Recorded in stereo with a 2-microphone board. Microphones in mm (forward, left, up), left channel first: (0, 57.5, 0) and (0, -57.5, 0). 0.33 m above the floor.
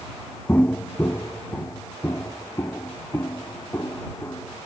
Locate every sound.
0.5 s footsteps: 15° left (ahead or behind); by 4.7 s 25° left (ahead or behind)